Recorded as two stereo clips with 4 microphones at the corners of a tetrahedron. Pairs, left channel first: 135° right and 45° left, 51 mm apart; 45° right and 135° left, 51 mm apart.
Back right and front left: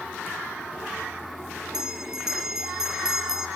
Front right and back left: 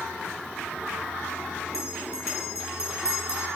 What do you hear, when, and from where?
1.7 s a bell: 35° right, 1.4 m